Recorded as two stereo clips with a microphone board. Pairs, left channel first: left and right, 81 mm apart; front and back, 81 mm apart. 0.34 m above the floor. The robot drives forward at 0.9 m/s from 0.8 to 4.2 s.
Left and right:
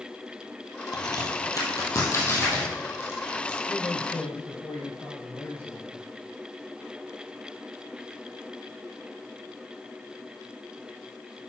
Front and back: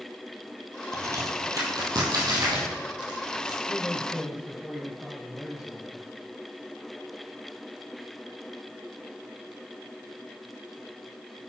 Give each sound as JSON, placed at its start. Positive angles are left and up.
{"t": 0.9, "sound": "a crack", "azimuth_deg": 125, "distance_m": 1.9}
{"t": 3.7, "sound": "a man speaking", "azimuth_deg": 70, "distance_m": 1.5}